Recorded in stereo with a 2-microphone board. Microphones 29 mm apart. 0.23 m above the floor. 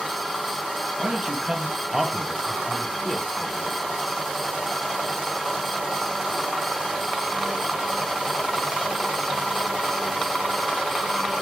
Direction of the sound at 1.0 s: 30° right (ahead or behind).